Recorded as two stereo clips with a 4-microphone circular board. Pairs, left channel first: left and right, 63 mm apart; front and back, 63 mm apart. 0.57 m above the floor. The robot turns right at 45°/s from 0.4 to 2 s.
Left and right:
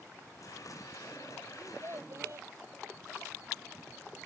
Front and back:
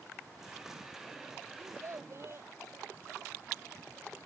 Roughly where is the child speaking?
Behind right.